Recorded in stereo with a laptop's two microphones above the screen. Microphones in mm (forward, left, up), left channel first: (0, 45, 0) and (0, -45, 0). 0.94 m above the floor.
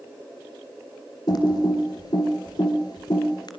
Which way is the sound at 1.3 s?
50° left (ahead or behind).